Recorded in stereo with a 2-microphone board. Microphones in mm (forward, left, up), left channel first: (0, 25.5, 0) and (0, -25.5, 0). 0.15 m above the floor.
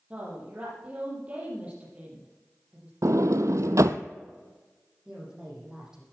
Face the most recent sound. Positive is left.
turn(degrees=-10)  # may be behind; listen again after turning